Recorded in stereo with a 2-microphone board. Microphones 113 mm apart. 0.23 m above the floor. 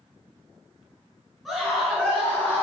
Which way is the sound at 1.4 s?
Centre (ahead or behind).